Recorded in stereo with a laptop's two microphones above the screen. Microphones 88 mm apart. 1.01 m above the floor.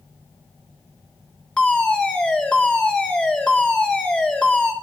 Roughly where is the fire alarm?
Centre.